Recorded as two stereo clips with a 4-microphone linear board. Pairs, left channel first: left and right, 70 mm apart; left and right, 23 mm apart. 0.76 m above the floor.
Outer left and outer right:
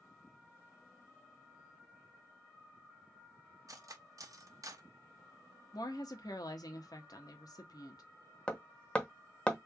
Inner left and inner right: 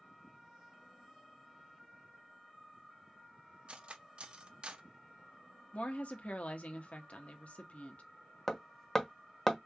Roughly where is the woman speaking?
Left.